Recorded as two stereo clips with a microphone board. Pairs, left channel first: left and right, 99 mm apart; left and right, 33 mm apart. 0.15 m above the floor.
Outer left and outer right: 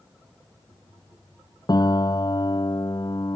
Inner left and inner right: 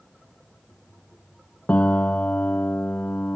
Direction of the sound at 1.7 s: 45° left (ahead or behind).